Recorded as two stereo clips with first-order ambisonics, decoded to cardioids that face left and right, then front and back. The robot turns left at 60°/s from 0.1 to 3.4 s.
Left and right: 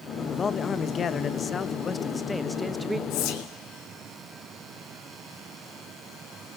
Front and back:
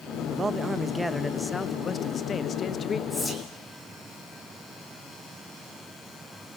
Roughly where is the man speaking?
Behind left.